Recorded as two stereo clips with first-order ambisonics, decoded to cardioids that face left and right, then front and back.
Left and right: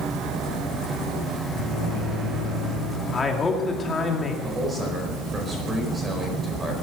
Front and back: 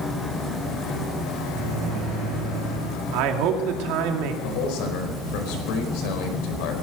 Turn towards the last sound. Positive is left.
turn(degrees=-15)